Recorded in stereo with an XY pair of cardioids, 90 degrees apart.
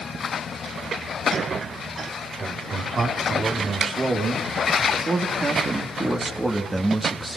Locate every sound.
2.4 s a man speaking: 50° right, 5 m; by 7.4 s 15° right, 3 m